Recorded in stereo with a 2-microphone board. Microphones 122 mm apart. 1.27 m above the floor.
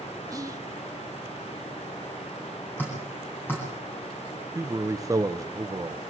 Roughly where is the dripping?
Centre.